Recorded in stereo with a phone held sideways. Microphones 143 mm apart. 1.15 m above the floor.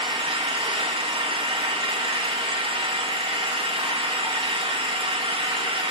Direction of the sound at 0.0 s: 40° right (ahead or behind).